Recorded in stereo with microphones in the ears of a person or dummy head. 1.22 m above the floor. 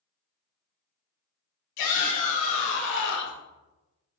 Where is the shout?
60° left (ahead or behind), 3 m; by 3.4 s 55° left (ahead or behind), 1.4 m.